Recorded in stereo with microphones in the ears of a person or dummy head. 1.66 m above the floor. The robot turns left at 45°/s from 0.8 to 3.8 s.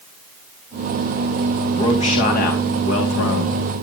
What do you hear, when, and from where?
1.7 s a man speaking: 155° left, 3.5 m; by 3.6 s 70° left, 3.5 m